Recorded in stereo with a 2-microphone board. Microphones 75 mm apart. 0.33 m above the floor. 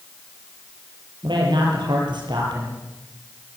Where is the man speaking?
80° right, 7.5 m.